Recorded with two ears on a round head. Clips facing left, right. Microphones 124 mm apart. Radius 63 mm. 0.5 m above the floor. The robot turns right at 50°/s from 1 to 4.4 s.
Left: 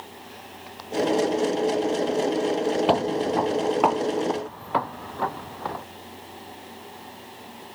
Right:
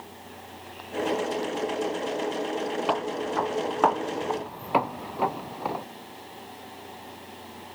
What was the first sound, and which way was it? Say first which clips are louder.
Footsteps: left 6 dB; 45° left (ahead or behind).